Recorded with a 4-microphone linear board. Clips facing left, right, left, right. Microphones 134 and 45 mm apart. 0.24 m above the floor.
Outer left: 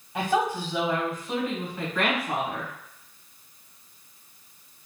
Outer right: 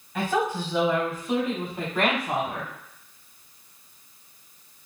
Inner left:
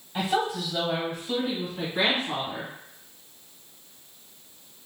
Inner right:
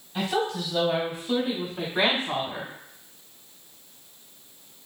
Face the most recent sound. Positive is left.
turn(degrees=-45)  # may be behind; listen again after turning